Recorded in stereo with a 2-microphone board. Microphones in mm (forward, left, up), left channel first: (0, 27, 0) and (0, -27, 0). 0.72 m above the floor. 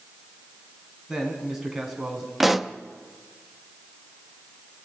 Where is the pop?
5° right (ahead or behind), 0.9 m.